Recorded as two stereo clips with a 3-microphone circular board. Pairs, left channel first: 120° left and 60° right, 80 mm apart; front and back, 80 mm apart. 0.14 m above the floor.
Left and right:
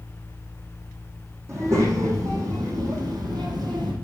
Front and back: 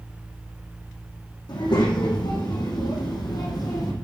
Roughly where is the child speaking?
Ahead.